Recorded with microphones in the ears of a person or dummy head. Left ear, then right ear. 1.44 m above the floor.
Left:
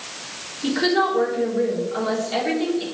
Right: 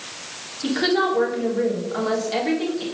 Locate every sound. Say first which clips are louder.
0.6 s a woman speaking: left 1 dB; 5° right (ahead or behind), 3.5 m